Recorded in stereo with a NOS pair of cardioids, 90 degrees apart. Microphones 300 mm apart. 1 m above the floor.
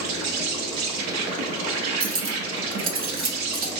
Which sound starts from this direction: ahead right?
Cutlery clinking, at 2.0 s.